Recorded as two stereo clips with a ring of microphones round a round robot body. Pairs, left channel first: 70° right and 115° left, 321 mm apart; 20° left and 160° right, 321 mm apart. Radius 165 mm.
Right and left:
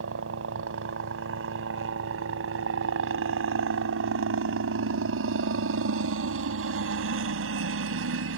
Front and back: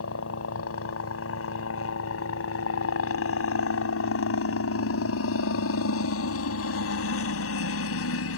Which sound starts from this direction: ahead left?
A helicopter, at 0.0 s.